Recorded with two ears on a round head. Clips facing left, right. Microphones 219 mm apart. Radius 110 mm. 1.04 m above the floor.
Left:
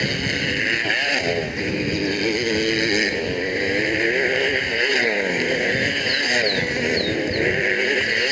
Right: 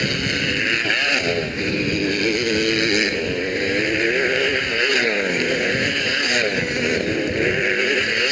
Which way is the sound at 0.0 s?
10° right (ahead or behind).